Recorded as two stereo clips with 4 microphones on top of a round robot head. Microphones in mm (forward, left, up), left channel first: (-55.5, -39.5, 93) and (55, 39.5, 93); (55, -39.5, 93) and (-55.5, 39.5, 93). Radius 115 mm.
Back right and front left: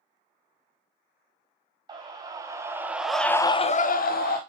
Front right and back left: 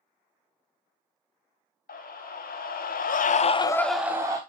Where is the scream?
25° right, 2 m; by 4.4 s 150° right, 1.1 m.